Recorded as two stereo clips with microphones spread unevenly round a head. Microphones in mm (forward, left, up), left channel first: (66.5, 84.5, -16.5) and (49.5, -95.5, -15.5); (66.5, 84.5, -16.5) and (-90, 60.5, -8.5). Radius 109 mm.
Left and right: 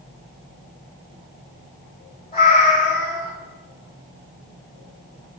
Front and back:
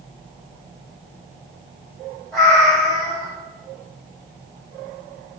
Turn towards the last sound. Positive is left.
turn(degrees=105)